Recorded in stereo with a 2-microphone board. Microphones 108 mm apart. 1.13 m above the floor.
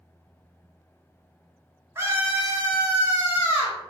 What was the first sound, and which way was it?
A scream, 25° right (ahead or behind).